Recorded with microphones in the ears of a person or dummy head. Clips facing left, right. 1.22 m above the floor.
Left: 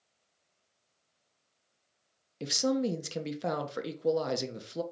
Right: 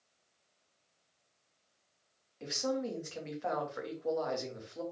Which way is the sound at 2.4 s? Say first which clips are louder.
Left 6 dB; 45° left (ahead or behind).